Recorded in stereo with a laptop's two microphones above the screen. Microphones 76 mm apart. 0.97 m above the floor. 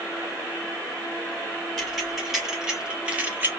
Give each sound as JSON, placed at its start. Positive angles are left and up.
{"t": 1.8, "sound": "keys jangling", "side_deg": 0, "distance_m": 2.0}